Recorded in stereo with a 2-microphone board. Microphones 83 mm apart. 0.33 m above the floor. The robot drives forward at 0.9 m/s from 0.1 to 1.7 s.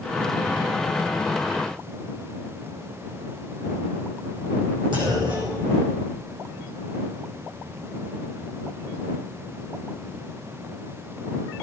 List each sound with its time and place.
4.9 s a clunk: 70° right (ahead or behind), 8.5 m